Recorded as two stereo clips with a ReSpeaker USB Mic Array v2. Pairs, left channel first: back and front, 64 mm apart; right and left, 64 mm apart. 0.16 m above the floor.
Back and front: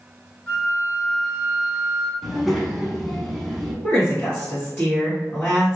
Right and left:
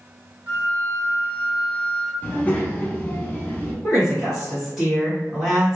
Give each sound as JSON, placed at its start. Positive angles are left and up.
{"t": 0.5, "sound": "a flute", "azimuth_deg": 100, "distance_m": 0.9}
{"t": 2.2, "sound": "a child speaking", "azimuth_deg": -90, "distance_m": 0.8}
{"t": 3.8, "sound": "a woman speaking", "azimuth_deg": 170, "distance_m": 1.8}